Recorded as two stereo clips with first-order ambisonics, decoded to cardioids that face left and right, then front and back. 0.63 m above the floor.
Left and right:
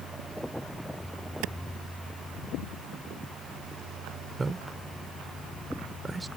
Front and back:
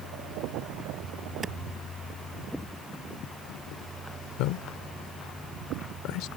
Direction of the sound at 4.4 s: 15° right.